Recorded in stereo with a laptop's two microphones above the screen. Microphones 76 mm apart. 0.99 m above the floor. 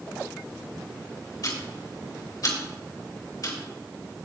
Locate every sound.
1.4 s ticking: 55° left (ahead or behind), 2.5 m